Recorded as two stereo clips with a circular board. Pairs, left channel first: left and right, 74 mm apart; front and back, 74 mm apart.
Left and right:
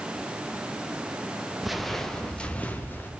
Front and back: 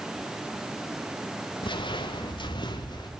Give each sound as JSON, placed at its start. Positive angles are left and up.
{"t": 1.6, "sound": "footsteps", "azimuth_deg": -5, "distance_m": 1.4}